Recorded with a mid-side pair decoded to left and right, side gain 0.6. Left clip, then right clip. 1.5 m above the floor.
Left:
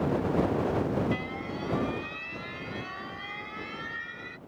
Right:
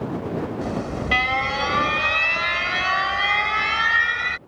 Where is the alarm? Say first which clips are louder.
Right 1 dB; 70° right.